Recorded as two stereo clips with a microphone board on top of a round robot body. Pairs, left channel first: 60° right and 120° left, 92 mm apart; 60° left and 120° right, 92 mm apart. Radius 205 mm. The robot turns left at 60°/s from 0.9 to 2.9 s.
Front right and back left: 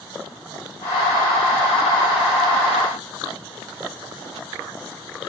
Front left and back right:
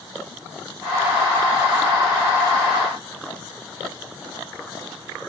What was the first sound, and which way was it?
Only background noise.